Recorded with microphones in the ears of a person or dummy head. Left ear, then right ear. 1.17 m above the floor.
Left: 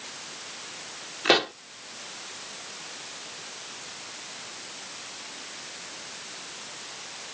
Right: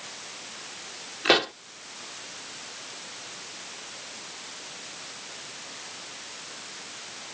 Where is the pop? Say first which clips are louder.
Even; centre (ahead or behind).